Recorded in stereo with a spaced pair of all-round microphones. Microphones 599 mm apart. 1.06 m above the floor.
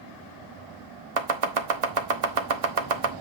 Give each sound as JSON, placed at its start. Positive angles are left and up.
{"t": 1.2, "sound": "chopping", "side_deg": -65, "distance_m": 0.9}